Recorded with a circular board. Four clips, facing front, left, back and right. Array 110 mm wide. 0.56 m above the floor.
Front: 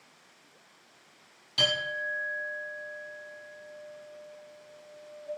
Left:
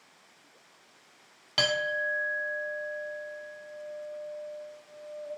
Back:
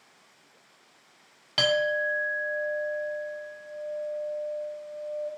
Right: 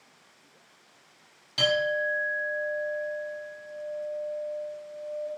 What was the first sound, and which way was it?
A clink, 145° left.